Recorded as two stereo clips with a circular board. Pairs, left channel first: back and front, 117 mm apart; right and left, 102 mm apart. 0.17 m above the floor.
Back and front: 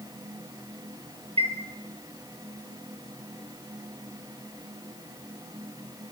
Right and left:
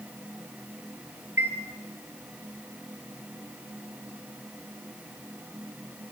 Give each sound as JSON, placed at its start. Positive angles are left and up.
{"t": 1.4, "sound": "a chime", "azimuth_deg": 25, "distance_m": 2.5}